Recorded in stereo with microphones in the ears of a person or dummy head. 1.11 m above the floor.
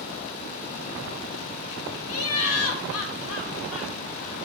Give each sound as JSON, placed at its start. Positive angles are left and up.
{"t": 2.1, "sound": "laughter", "side_deg": 75, "distance_m": 1.0}